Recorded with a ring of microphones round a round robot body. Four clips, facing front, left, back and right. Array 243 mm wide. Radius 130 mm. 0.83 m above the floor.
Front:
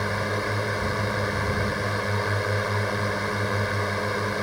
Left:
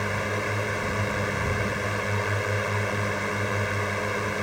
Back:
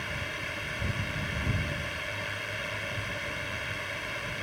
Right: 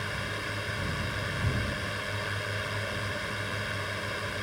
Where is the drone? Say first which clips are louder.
Left 8 dB, front 11 dB; 35° left.